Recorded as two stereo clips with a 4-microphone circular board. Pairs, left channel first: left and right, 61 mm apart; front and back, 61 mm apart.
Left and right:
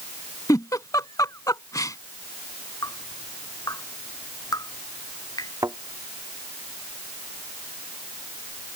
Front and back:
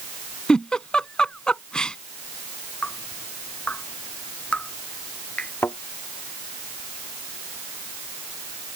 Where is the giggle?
75° left.